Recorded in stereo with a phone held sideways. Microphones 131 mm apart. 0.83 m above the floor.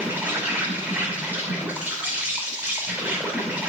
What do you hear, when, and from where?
0.0 s an insect: 15° right (ahead or behind), 5 m